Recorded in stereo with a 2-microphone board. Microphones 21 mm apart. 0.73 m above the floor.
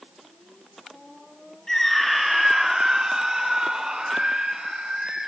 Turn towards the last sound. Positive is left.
turn(degrees=-55)  # may be behind; listen again after turning